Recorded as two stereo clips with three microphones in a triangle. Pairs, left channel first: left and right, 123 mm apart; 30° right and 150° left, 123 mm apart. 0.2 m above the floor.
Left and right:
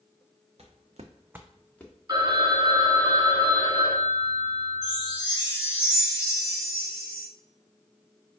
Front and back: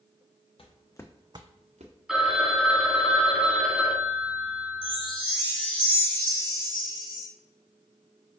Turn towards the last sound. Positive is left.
turn(degrees=-170)